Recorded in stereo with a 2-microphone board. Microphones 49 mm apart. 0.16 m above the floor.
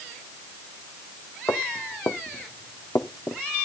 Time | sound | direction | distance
1.5 | footsteps | 80° left | 2.5 m